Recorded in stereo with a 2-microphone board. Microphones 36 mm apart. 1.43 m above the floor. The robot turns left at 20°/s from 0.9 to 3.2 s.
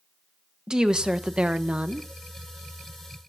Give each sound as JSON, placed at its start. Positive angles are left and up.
{"t": 0.7, "sound": "a woman speaking", "side_deg": -20, "distance_m": 1.0}